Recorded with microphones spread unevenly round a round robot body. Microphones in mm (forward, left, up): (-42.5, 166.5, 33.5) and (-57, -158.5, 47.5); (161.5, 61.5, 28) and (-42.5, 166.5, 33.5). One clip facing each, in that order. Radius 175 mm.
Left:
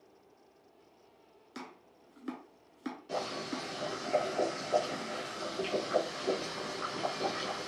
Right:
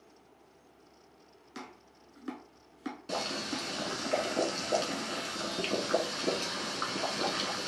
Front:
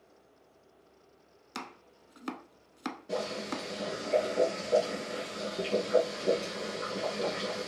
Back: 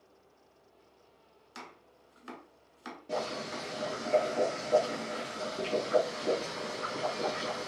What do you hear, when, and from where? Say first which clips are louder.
1.6 s chopping: even, front 6 dB; 5° right, 0.7 m
3.1 s boiling: right 1 dB, front 1 dB; 110° right, 1.4 m